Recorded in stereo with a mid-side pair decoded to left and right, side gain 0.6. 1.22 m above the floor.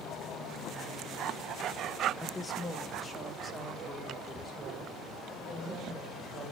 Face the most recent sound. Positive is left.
turn(degrees=5)